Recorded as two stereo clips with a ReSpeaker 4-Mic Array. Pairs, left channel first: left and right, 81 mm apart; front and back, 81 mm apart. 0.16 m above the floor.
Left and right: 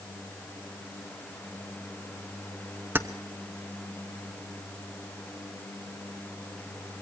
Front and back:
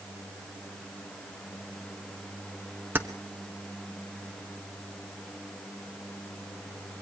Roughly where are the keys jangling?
Behind right.